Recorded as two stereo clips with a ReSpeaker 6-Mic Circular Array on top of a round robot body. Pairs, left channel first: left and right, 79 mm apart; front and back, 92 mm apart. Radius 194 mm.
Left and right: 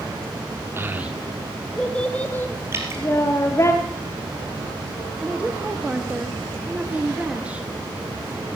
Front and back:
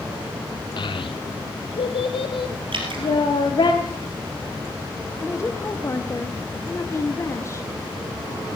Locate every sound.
0.8 s a child speaking: 30° right, 0.7 m; by 3.7 s 35° left, 1.7 m
2.7 s dripping: 150° right, 2.5 m
5.2 s a woman speaking: 30° right, 1.3 m